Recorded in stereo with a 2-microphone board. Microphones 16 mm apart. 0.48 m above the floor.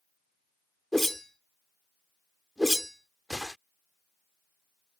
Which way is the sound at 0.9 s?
20° left (ahead or behind).